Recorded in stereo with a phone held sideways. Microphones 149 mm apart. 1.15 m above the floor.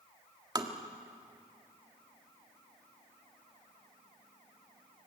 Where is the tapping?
25° right (ahead or behind), 1.6 m.